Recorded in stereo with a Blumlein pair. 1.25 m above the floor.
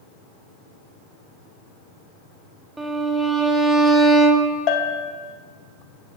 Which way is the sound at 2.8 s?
10° right.